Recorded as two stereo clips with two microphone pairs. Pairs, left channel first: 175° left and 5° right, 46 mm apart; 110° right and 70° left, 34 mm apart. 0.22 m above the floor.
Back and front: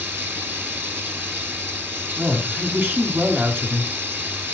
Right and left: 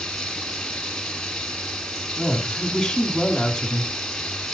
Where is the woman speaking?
30° right, 2 m.